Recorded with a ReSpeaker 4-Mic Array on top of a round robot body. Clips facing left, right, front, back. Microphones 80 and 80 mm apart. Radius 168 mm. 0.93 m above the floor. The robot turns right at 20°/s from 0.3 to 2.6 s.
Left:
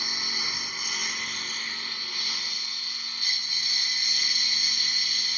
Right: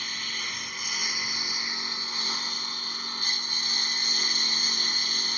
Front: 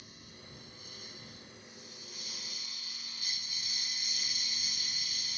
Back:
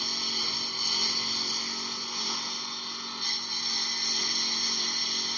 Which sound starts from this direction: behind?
A lawn mower, at 0.0 s.